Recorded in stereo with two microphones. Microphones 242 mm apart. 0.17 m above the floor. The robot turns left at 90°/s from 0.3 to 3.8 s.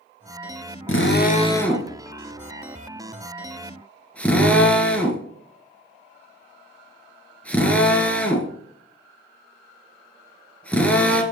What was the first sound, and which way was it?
A drill, 60° left (ahead or behind).